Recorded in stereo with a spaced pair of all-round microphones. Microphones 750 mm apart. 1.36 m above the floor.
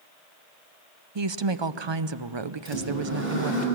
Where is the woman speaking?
40° right (ahead or behind), 0.7 m.